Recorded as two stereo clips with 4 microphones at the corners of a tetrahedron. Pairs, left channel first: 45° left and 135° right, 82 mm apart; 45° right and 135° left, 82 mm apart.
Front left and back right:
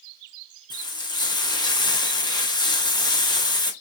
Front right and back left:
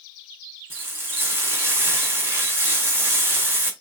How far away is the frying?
About 1.3 m.